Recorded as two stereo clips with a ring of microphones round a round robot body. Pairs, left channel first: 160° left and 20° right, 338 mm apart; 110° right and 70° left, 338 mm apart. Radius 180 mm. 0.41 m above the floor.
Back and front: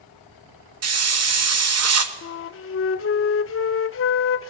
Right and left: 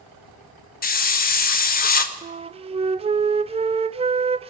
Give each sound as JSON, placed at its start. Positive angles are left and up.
{"t": 0.8, "sound": "a hiss", "azimuth_deg": -55, "distance_m": 1.5}
{"t": 2.2, "sound": "a flute", "azimuth_deg": 130, "distance_m": 0.5}